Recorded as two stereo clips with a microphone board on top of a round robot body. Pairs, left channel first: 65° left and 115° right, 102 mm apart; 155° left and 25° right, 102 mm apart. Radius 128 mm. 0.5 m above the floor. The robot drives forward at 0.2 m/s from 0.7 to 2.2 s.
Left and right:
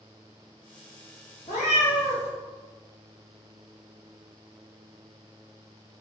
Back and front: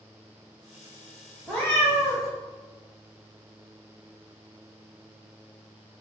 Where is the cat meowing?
80° left, 0.6 m; by 2.3 s 95° left, 0.6 m.